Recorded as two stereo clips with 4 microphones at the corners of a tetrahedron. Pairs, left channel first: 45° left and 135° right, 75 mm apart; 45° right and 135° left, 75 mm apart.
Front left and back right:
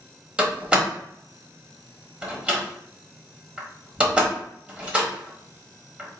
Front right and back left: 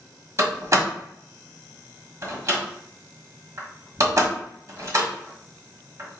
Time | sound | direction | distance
0.4 | a door slam | 155° left | 1.3 m